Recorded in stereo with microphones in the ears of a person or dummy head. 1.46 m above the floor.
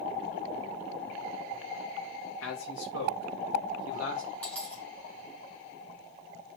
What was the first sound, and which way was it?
A man speaking, 85° left.